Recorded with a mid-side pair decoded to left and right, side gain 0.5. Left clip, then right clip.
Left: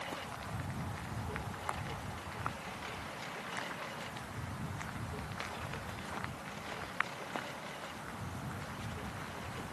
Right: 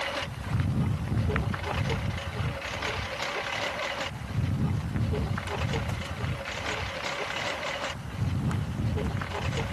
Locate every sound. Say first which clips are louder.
0.0 s a lawn mower: right 9 dB; 65° right; by 9.7 s 70° right